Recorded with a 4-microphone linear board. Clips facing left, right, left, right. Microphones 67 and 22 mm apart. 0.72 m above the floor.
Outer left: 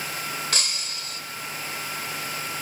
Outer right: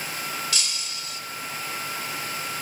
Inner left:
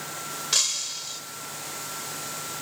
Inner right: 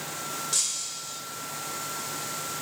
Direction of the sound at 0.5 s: 50° left (ahead or behind).